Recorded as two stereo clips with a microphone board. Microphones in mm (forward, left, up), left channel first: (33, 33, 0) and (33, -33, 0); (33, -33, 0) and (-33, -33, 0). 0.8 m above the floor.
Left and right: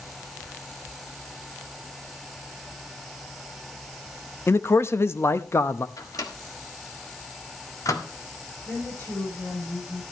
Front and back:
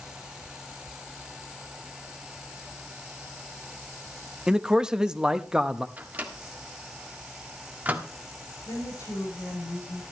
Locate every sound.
4.5 s a man speaking: 110° left, 0.7 m
6.0 s a microwave: 115° left, 1.5 m
8.7 s a woman speaking: 30° left, 8.5 m